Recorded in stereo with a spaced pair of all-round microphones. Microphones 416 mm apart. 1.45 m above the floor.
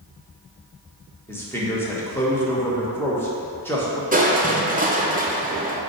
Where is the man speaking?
5° left (ahead or behind), 1.2 m.